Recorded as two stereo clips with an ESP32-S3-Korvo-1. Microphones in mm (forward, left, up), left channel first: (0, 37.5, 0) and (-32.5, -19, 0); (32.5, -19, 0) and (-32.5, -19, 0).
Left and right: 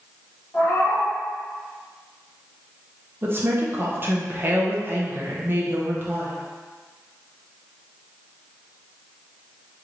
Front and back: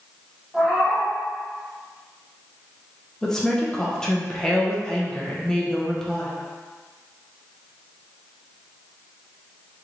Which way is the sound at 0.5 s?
95° left.